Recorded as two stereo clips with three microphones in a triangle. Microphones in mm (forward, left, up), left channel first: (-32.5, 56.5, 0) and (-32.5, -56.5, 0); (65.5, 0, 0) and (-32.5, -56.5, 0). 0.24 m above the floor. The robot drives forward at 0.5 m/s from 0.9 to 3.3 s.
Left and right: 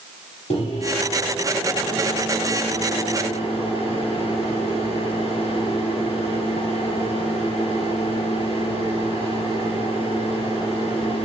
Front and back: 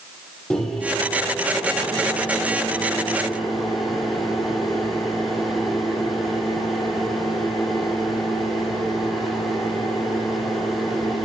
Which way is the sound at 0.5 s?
115° left.